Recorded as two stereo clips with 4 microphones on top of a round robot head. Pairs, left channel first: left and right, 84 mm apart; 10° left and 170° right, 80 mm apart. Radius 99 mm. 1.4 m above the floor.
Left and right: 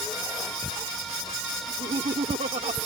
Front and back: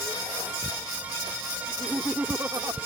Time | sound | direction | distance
1.7 | laughter | 85° right | ?